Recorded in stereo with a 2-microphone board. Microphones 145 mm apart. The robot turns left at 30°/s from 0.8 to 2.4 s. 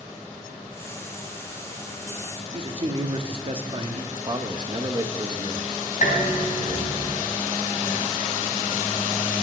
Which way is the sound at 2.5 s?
40° right (ahead or behind).